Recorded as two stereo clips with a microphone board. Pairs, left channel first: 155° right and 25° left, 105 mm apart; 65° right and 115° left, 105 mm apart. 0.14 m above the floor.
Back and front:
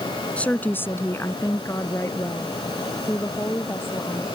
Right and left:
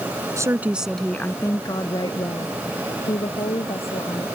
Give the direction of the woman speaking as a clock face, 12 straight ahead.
8 o'clock.